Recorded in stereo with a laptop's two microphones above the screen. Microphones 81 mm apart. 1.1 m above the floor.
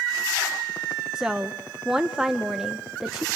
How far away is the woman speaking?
About 0.6 m.